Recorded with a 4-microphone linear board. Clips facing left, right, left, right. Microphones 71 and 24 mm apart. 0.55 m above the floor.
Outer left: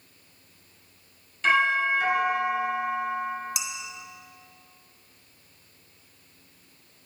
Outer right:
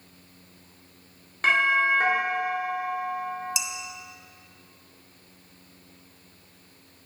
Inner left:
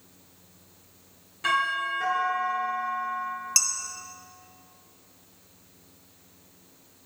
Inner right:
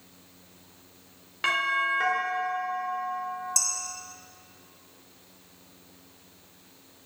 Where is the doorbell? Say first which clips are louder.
Even, even; 55° right (ahead or behind), 1.9 m.